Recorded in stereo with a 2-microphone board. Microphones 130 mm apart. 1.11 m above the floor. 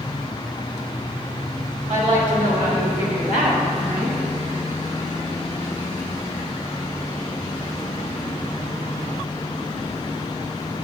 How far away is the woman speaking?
About 3.5 m.